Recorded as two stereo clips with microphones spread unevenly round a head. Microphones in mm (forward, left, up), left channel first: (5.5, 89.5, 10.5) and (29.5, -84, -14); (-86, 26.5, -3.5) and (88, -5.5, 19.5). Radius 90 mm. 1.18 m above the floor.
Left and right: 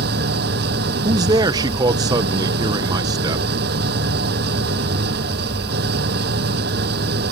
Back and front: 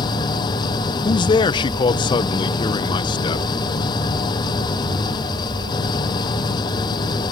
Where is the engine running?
120° right.